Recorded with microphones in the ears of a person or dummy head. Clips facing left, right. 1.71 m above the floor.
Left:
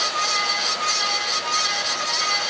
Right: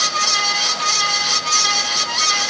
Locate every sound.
Only background noise.